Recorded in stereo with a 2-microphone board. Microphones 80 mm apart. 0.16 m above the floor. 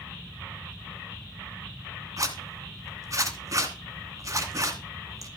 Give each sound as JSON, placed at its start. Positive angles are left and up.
{"t": 2.2, "sound": "a zipper", "side_deg": -40, "distance_m": 2.0}